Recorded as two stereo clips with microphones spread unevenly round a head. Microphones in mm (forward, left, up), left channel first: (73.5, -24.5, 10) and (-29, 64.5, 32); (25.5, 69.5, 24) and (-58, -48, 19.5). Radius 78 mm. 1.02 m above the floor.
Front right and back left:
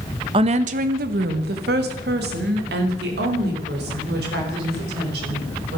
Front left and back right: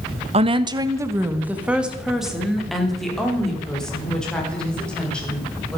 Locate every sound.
0.3 s a woman speaking: 165° right, 0.8 m; by 5.8 s 135° left, 5.5 m